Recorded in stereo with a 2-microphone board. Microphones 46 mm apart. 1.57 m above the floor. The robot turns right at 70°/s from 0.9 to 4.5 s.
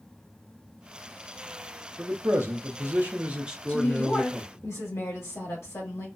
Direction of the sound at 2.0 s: 130° right.